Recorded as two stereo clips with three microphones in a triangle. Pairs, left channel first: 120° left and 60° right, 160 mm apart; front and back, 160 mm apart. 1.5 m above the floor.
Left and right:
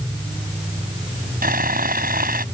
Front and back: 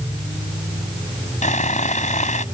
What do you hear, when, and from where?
1.4 s sawing: 40° right